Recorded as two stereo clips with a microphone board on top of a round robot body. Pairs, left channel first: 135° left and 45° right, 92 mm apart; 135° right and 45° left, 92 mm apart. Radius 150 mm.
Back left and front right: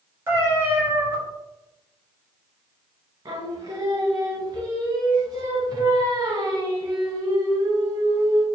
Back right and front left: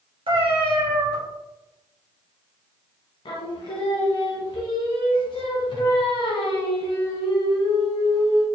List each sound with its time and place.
0.3 s a cat meowing: 20° left, 1.8 m
3.2 s singing: 100° right, 0.5 m